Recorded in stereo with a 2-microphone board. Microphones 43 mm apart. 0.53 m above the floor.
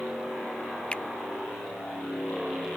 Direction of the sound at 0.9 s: 25° left (ahead or behind).